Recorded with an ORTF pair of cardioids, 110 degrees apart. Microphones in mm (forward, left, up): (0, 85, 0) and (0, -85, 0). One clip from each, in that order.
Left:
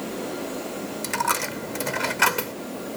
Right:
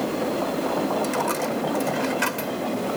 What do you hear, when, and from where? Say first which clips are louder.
1.0 s a dropped coin: right 1 dB; 35° left